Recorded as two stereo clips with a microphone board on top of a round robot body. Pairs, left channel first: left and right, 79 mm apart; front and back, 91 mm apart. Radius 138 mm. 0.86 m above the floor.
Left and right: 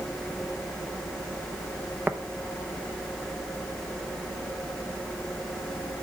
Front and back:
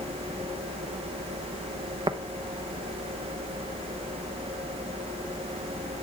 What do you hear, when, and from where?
2.1 s tapping: 155° right, 0.9 m